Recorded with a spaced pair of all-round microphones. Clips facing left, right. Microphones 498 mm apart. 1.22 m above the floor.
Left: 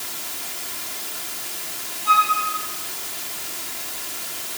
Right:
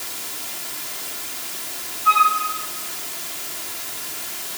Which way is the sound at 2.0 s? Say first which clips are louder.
Right 1 dB; 5° left (ahead or behind).